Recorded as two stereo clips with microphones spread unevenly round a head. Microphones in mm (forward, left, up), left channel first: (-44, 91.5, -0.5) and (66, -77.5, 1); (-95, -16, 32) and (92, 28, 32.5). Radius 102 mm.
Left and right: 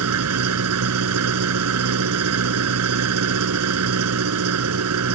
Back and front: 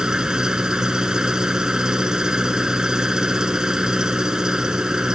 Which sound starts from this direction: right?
An engine running, at 0.0 s.